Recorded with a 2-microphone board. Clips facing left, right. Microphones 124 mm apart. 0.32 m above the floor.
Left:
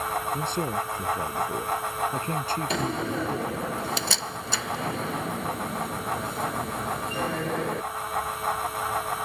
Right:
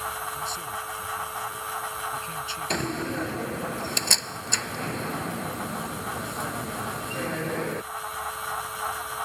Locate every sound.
0.3 s a man speaking: 60° left (ahead or behind); by 3.7 s 45° left (ahead or behind)
2.7 s a door slam: centre (ahead or behind)